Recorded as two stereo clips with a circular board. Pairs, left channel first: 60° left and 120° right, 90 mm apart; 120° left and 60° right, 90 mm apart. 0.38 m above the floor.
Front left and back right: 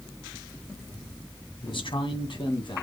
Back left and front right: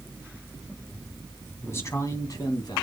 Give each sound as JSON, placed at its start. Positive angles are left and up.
{"t": 1.6, "sound": "a man speaking", "azimuth_deg": 60, "distance_m": 2.5}